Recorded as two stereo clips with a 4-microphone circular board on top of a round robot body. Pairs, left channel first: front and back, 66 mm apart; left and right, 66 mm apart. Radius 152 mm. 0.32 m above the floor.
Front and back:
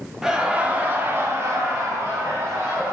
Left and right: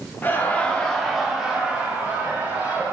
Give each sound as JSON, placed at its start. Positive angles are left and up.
{"t": 0.2, "sound": "laughter", "azimuth_deg": 105, "distance_m": 0.9}